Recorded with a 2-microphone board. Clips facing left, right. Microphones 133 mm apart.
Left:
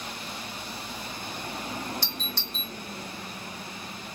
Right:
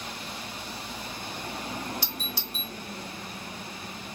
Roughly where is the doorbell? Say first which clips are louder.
Even; centre.